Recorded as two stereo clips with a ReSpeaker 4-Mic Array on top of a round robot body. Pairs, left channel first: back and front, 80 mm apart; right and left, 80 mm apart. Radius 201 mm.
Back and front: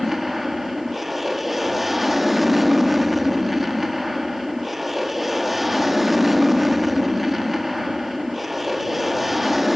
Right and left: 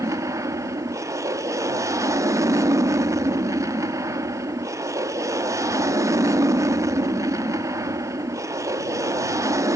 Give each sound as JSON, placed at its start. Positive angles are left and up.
{"t": 0.0, "sound": "an aircraft", "azimuth_deg": 90}